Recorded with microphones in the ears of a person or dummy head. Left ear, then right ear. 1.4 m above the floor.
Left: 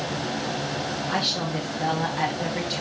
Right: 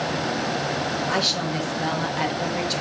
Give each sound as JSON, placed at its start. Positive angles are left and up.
{"t": 1.1, "sound": "a woman speaking", "side_deg": -25, "distance_m": 2.5}